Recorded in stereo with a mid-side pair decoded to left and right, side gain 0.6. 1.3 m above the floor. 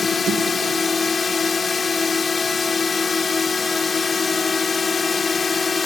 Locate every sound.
0.0 s a drone: 25° left